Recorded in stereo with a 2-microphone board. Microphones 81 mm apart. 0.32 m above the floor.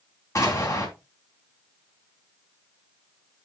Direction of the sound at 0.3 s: 40° left (ahead or behind).